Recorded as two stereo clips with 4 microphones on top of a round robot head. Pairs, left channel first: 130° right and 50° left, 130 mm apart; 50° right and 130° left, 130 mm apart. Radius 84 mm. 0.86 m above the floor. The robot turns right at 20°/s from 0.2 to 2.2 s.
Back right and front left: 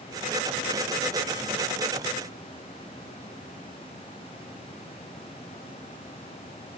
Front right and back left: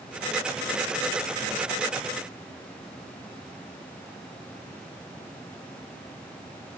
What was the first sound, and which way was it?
Only background noise.